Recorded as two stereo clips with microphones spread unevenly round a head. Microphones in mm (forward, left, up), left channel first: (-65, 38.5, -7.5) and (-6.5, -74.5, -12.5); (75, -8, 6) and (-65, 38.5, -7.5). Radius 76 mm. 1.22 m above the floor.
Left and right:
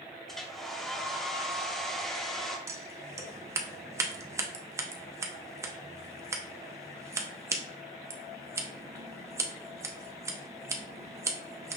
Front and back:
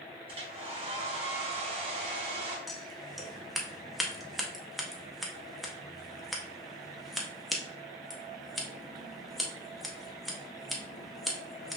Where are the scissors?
95° right, 0.6 m.